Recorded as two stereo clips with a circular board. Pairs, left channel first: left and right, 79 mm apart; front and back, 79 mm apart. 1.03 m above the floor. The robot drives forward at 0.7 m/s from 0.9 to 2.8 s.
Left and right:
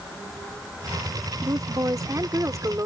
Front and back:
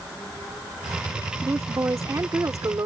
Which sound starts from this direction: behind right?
A woman speaking, at 1.4 s.